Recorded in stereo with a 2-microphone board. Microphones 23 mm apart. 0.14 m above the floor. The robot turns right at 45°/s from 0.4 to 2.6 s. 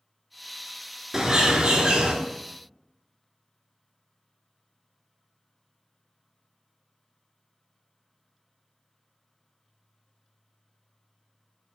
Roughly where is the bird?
Behind right.